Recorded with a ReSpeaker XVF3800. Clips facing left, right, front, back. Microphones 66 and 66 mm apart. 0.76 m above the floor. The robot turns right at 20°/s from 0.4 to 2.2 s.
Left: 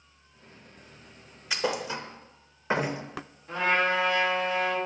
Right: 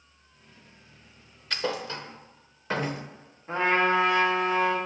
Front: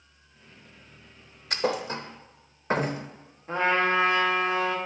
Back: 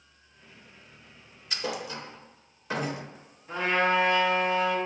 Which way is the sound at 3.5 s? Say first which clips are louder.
Right 2 dB, front 1 dB; 35° right.